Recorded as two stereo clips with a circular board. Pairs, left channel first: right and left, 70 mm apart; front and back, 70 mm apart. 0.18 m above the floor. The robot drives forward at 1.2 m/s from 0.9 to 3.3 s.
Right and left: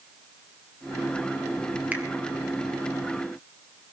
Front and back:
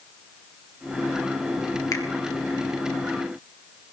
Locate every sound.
1.9 s a finger snap: 25° left, 2 m